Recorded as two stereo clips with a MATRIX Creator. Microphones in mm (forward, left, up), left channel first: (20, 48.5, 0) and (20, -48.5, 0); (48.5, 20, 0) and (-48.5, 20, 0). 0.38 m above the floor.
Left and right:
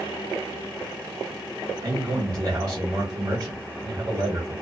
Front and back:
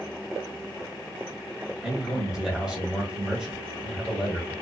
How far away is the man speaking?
About 1.1 m.